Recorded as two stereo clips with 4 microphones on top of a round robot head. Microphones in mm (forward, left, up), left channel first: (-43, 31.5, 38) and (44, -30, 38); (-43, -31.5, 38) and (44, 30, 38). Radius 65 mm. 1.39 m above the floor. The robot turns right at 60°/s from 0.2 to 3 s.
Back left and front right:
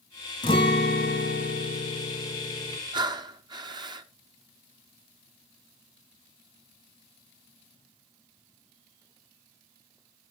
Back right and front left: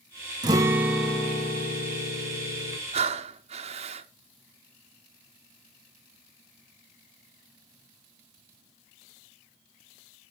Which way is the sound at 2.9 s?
10° left.